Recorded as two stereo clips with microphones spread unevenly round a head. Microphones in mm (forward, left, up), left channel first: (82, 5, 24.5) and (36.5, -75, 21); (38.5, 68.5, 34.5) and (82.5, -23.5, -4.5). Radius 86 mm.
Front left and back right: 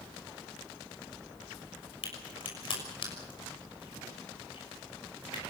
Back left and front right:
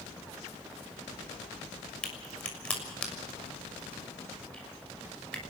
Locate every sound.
2.0 s a crack: 40° left, 6.5 m